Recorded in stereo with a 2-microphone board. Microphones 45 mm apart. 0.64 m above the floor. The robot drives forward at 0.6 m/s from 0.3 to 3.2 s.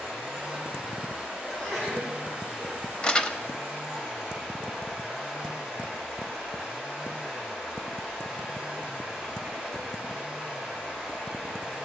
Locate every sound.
0.0 s running water: 20° right (ahead or behind), 6 m; by 11.8 s 15° right (ahead or behind), 7.5 m
1.5 s a sneeze: 5° left (ahead or behind), 5 m
3.0 s crumpling: 20° left (ahead or behind), 0.6 m